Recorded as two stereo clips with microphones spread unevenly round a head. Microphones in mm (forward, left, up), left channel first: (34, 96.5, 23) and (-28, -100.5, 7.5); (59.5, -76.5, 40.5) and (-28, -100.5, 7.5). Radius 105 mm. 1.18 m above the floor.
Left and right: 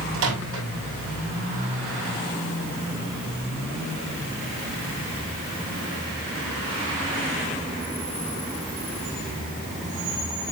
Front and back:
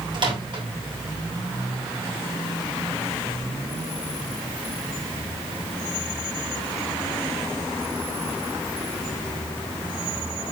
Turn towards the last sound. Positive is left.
turn(degrees=-130)